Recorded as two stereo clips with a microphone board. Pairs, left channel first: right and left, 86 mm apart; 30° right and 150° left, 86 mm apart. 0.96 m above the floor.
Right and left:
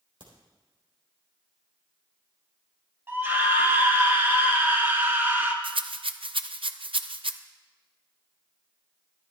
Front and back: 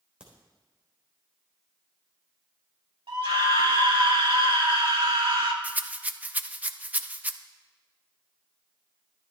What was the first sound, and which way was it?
A crack, 70° left.